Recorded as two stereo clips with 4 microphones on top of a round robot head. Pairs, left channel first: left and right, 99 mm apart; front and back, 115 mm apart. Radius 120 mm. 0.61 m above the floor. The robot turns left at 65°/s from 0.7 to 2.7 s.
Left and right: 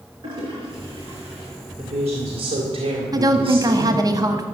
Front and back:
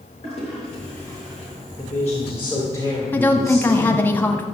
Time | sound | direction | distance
0.2 | a toilet flushing | 40° right | 5.5 m
1.8 | a woman speaking | 55° right | 2.5 m
3.1 | a woman speaking | 65° right | 1.4 m